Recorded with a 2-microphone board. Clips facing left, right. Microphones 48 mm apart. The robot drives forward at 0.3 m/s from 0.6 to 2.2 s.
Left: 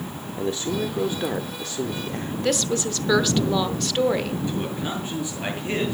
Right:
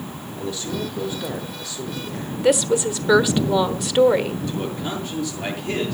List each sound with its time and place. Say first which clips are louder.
0.4 s a man speaking: left 2 dB; 35° left (ahead or behind), 1.1 m; by 2.3 s 40° left (ahead or behind), 1.0 m
2.4 s a woman speaking: right 7 dB; 10° right (ahead or behind), 1.0 m
4.5 s a man speaking: right 1 dB; 25° left (ahead or behind), 7.5 m